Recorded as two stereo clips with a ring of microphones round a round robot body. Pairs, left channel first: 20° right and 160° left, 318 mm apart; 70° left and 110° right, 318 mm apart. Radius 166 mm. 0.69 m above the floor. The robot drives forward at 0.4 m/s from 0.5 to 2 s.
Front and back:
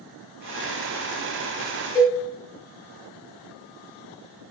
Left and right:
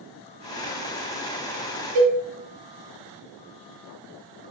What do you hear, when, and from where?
1.9 s a cowbell: 85° right, 0.7 m